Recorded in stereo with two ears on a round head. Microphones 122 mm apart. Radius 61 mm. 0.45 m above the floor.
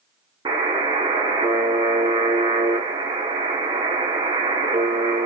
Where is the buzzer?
30° right (ahead or behind), 0.9 m.